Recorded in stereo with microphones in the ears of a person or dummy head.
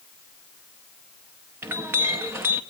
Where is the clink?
15° right (ahead or behind), 0.6 m.